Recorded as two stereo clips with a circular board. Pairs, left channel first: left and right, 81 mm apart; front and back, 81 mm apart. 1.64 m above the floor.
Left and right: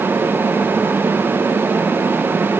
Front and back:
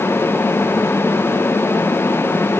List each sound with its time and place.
Only background noise.